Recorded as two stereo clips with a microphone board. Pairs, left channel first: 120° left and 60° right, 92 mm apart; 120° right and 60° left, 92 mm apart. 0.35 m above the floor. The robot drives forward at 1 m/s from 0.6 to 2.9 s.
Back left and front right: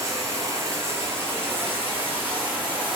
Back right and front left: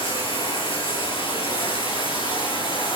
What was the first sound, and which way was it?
Running water, 115° right.